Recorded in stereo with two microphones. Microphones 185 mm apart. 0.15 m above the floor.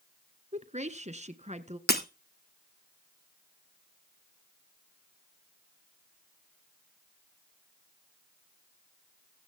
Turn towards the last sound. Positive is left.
turn(degrees=60)  # may be behind; listen again after turning